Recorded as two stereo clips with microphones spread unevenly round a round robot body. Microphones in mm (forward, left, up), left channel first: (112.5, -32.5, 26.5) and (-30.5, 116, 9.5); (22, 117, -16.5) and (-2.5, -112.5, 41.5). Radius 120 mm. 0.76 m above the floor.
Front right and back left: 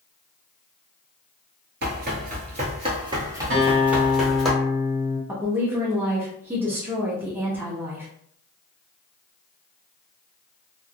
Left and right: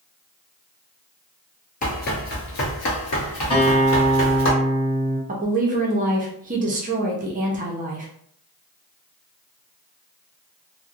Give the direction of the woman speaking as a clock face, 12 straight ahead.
5 o'clock.